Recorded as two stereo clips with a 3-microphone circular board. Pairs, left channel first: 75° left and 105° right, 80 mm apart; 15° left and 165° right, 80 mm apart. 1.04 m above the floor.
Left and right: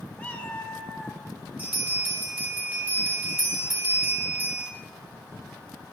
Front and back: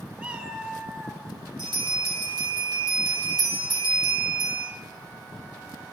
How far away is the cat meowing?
About 0.9 m.